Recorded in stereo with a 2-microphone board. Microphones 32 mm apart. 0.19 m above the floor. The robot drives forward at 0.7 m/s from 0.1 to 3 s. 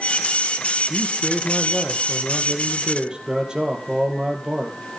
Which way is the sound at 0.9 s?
40° right (ahead or behind).